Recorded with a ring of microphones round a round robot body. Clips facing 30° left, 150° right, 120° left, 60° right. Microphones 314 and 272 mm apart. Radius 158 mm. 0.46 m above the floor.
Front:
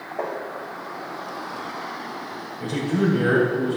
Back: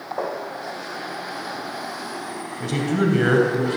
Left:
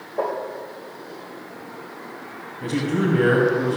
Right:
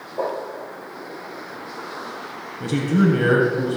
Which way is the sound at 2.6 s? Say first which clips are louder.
Back 1 dB, right 3 dB; 110° right.